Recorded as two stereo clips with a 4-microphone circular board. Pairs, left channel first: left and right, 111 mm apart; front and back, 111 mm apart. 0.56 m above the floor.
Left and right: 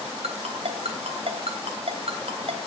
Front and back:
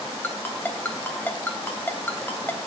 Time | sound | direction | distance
0.2 | a ringtone | 70° right | 2.5 m